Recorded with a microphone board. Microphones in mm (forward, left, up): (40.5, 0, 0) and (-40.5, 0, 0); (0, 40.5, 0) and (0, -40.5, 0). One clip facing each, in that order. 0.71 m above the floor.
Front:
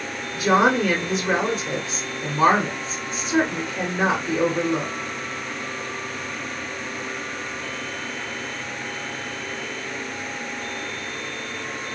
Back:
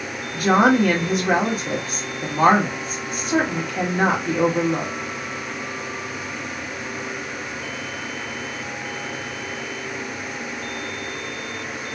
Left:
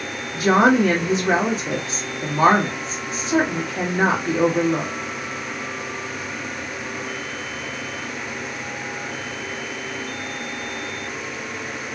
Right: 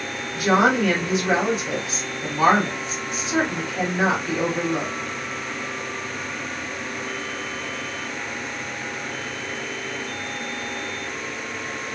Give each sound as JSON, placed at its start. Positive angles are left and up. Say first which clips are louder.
{"t": 0.3, "sound": "a woman speaking", "louder": "back 2 dB, left 3 dB", "azimuth_deg": 150, "distance_m": 1.8}